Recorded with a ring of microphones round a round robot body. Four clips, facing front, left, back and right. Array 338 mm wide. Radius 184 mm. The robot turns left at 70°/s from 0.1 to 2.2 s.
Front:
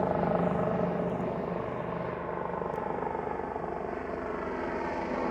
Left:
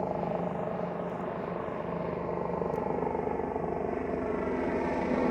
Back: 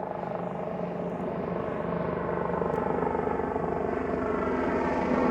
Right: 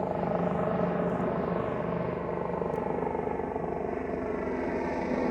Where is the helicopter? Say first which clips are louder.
Right 2 dB, front 5 dB; 10° right; by 5.3 s 175° left.